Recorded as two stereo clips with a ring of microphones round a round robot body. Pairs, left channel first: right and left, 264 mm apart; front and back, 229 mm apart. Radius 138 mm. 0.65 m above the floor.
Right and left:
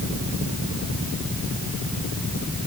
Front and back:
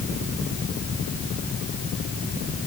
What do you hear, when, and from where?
Only background noise.